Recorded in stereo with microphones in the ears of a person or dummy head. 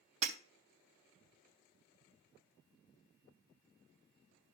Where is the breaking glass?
40° right (ahead or behind), 2.5 m.